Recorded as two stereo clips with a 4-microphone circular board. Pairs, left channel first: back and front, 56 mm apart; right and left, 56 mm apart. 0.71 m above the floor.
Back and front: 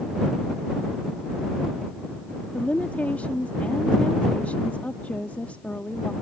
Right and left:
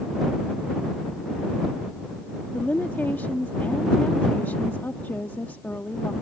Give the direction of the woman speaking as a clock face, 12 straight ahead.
4 o'clock.